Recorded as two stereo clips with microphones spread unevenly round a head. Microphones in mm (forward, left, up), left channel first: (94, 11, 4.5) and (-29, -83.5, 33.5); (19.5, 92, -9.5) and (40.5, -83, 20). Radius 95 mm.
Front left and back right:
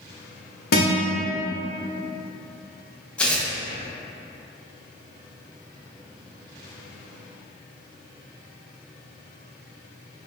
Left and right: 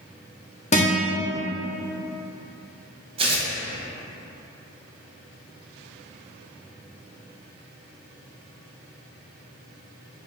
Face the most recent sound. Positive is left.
turn(degrees=-55)